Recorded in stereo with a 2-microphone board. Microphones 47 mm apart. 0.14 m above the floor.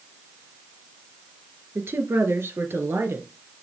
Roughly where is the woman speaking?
Right.